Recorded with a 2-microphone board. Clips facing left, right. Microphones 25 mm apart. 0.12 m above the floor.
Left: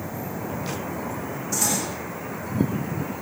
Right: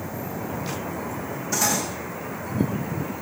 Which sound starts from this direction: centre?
Cutlery clinking, at 1.5 s.